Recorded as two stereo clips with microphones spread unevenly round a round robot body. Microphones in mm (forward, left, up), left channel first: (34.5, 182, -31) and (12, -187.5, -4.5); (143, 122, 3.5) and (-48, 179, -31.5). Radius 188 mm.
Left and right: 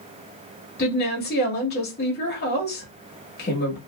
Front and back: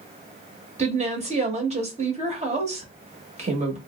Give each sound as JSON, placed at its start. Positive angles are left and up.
{"t": 0.8, "sound": "a woman speaking", "azimuth_deg": 140, "distance_m": 1.2}